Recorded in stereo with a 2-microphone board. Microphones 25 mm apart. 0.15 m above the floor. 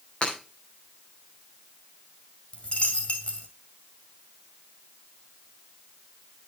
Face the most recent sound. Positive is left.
turn(degrees=55)  # may be behind; listen again after turning